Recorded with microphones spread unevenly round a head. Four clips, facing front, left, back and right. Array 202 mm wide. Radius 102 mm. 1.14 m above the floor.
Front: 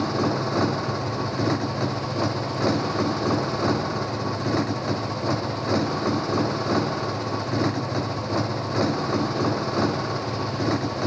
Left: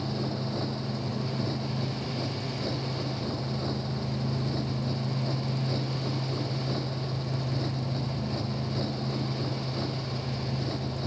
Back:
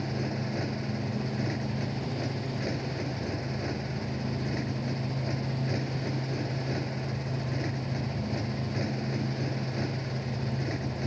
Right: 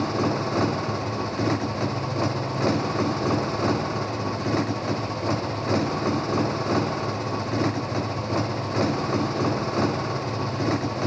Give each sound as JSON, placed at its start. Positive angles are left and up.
{"t": 0.0, "sound": "a motorcycle", "azimuth_deg": -40}